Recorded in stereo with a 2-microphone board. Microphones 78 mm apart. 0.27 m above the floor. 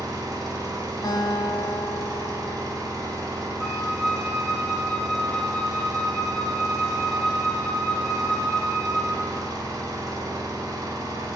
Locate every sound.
0.0 s an engine running: 50° right (ahead or behind), 0.9 m
1.0 s a guitar: 60° left (ahead or behind), 0.6 m
3.6 s a flute: 5° left (ahead or behind), 1.1 m